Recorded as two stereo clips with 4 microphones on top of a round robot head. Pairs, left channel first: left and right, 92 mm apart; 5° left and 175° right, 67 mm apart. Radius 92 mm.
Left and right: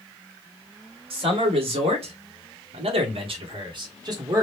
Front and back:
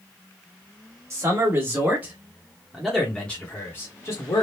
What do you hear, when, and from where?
1.1 s a man speaking: 120° right, 1.6 m; by 4.4 s 35° right, 1.2 m